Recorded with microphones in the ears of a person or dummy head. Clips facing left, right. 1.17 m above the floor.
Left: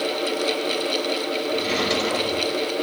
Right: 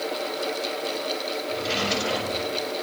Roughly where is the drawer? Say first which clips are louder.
Left 3 dB; left.